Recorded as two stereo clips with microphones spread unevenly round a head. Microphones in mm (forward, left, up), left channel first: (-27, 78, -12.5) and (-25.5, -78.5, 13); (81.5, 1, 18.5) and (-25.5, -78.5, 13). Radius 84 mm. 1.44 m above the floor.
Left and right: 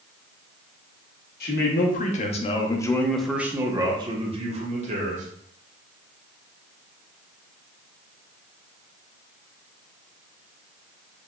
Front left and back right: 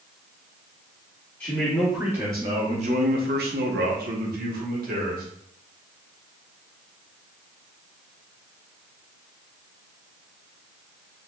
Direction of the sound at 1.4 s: 120° left.